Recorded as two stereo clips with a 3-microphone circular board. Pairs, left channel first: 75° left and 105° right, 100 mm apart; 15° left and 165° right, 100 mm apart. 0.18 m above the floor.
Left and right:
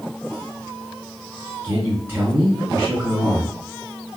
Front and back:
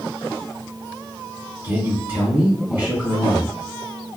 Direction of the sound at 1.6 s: 130° right.